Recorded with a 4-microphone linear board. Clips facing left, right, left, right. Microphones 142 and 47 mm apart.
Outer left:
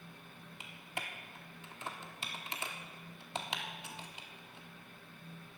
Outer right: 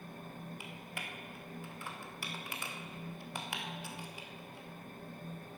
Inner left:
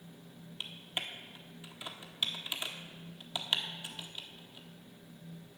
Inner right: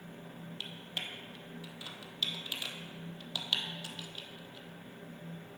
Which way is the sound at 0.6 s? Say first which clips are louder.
Even, inner left 2 dB; 20° left (ahead or behind).